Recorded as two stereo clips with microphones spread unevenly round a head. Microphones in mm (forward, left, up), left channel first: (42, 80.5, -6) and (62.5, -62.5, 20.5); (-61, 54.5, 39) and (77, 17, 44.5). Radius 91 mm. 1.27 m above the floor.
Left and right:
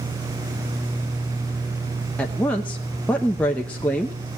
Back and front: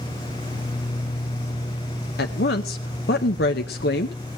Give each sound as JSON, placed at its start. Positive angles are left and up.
{"t": 2.2, "sound": "a woman speaking", "azimuth_deg": -175, "distance_m": 0.8}